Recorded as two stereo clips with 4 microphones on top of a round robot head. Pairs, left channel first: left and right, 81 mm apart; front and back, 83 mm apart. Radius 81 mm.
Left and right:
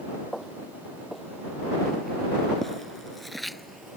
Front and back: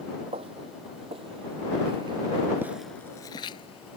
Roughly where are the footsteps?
Behind.